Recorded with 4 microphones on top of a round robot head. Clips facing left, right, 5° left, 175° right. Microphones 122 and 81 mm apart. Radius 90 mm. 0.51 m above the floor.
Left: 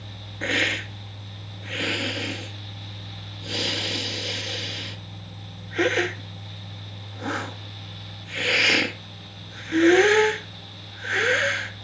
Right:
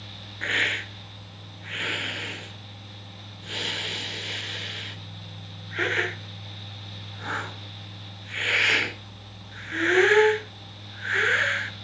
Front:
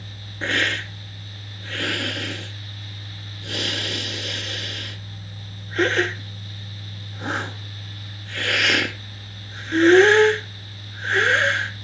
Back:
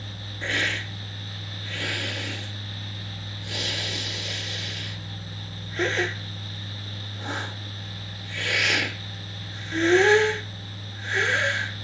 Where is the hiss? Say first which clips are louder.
Left 4 dB, front 4 dB; 35° left, 1.2 m.